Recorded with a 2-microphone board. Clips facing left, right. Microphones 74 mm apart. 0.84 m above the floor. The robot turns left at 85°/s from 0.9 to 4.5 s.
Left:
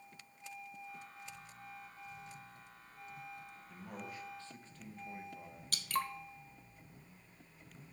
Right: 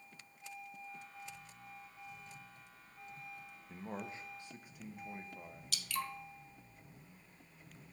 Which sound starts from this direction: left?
Dripping, at 5.7 s.